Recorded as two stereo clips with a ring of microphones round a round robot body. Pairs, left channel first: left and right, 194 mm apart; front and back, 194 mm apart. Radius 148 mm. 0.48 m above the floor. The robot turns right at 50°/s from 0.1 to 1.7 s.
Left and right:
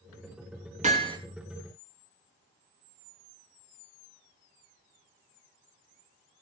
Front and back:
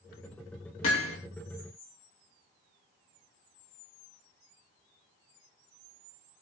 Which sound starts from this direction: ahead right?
Hammering, at 0.8 s.